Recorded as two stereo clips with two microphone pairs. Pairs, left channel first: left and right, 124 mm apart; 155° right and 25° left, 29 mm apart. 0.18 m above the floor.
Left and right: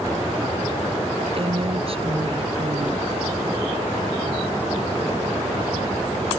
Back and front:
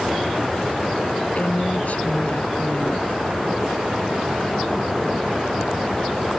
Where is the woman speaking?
125° right.